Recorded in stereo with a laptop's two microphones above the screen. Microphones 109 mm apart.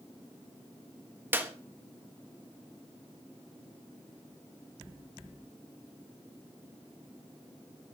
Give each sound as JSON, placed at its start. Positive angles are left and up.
{"t": 1.3, "sound": "a clap", "side_deg": -20, "distance_m": 1.4}